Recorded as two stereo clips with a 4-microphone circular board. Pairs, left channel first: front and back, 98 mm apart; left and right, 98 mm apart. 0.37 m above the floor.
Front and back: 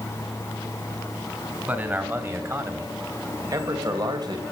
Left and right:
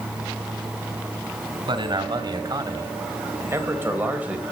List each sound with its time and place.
1.7 s a man speaking: 110° right, 2.5 m; by 4.4 s 165° right, 2 m